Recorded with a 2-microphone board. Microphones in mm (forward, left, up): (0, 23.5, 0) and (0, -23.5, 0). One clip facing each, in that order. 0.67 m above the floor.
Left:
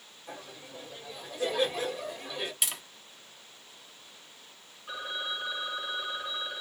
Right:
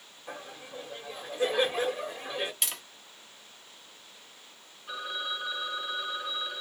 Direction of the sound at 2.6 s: Centre (ahead or behind).